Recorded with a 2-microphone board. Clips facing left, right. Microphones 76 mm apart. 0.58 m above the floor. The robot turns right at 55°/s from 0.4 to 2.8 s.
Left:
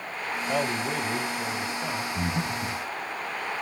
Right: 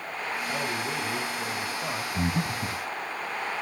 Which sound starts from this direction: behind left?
A man speaking, at 0.5 s.